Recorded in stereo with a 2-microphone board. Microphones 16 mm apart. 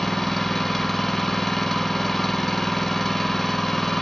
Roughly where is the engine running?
Centre.